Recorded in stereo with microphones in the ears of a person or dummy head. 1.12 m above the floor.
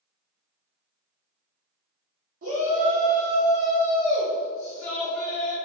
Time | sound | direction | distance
2.4 | a shout | 55° right (ahead or behind) | 1.8 m